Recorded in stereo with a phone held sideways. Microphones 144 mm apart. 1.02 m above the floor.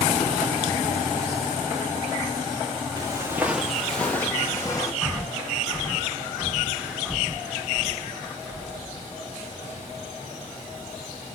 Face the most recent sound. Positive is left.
turn(degrees=5)  # may be behind; listen again after turning